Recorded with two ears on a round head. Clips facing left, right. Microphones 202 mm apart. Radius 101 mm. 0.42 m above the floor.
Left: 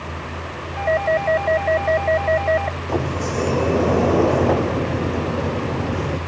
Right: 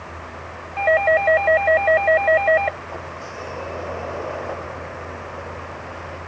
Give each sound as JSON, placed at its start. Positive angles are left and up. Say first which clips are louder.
{"t": 0.8, "sound": "a doorbell", "louder": "right 2 dB", "side_deg": -60}
{"t": 2.9, "sound": "a sliding door", "louder": "left 12 dB", "side_deg": 70}